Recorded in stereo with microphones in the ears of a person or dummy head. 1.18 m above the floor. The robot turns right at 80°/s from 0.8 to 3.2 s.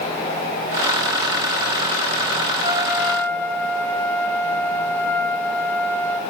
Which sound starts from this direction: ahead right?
A trumpet, at 2.6 s.